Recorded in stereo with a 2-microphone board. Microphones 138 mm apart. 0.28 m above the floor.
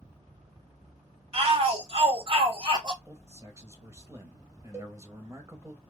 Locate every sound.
1.3 s a shout: 45° right (ahead or behind), 1.6 m; by 3.0 s 35° right (ahead or behind), 1.5 m
3.0 s a man speaking: 20° right (ahead or behind), 1.1 m
4.7 s a cowbell: 20° right (ahead or behind), 1.2 m